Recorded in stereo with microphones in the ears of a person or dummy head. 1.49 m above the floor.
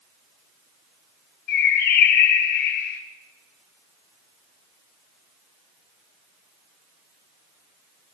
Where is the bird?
65° left (ahead or behind), 1.0 m.